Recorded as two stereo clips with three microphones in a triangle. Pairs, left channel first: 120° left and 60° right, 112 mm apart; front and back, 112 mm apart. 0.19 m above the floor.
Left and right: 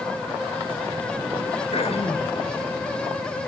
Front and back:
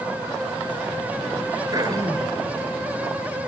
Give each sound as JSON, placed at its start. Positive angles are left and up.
{"t": 1.7, "sound": "throat clearing", "azimuth_deg": 130, "distance_m": 2.5}